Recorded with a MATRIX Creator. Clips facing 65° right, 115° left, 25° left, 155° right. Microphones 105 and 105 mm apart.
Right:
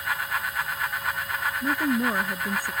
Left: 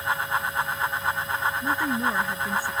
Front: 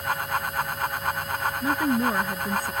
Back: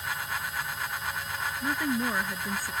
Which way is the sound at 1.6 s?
15° right.